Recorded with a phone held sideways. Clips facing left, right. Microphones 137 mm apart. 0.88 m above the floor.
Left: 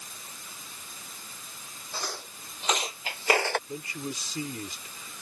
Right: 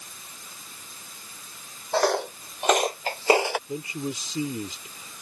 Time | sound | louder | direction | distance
1.9 | footsteps | right 16 dB | 70° right (ahead or behind) | ?
3.7 | a man speaking | right 5 dB | 20° right (ahead or behind) | ?